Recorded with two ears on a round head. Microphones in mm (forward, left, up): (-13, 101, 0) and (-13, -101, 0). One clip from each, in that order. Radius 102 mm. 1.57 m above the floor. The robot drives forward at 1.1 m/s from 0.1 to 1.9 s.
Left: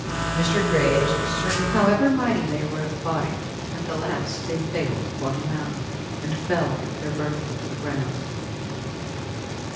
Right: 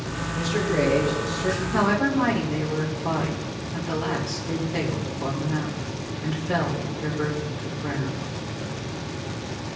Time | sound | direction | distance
0.3 | a man speaking | 85° left | 4.5 m
1.7 | a woman speaking | 15° left (ahead or behind) | 2 m